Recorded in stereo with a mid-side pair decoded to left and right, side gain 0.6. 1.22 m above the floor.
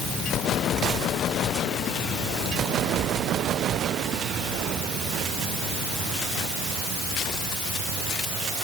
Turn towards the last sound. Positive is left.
No sound to turn to.